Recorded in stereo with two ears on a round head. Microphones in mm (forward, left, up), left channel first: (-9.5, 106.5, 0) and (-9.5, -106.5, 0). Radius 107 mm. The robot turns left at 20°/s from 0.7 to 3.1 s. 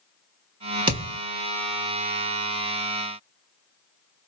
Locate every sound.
0.9 s a thud: 20° right (ahead or behind), 1.4 m